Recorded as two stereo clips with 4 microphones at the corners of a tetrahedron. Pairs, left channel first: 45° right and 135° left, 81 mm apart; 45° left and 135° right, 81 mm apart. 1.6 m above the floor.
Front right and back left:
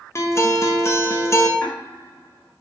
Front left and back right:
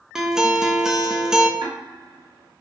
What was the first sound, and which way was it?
A guitar, 55° right.